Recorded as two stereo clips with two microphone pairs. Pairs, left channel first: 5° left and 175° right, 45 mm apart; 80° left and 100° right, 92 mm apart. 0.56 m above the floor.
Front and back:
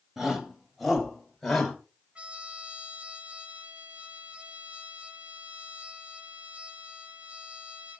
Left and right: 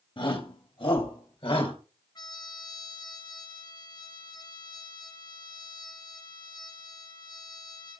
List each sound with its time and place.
0.2 s a shout: 105° left, 3 m; by 1.8 s 85° left, 3 m
2.1 s a trumpet: 120° left, 1.5 m